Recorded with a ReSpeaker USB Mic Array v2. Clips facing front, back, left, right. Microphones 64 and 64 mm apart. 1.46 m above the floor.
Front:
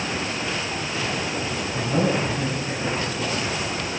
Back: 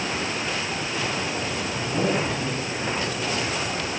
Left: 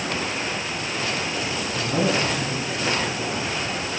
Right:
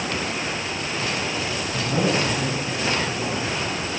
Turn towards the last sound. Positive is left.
turn(degrees=-40)